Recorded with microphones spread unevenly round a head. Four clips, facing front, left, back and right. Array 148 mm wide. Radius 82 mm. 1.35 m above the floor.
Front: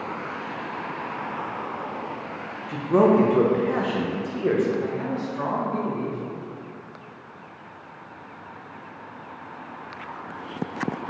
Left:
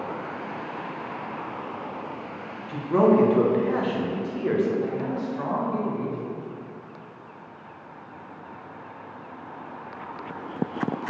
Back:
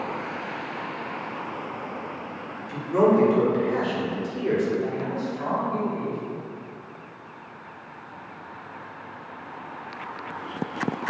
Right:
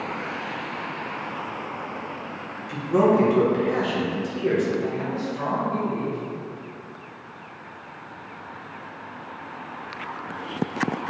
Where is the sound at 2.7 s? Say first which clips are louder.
Even, front 2 dB; straight ahead, 1.5 m.